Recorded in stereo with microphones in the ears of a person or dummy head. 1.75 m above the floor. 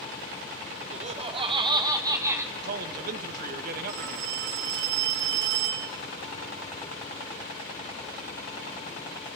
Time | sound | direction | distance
0.9 | laughter | 40° right (ahead or behind) | 1.7 m
2.5 | a man speaking | 50° right (ahead or behind) | 3 m
3.9 | a phone ringing | 70° right (ahead or behind) | 6.5 m